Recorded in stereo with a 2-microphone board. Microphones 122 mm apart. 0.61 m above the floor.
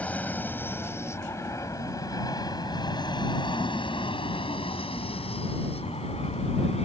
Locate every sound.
0.0 s an aircraft: 10° left (ahead or behind); by 6.8 s 60° left (ahead or behind)